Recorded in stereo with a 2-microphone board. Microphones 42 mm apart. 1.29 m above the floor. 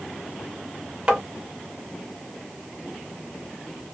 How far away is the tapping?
About 0.9 m.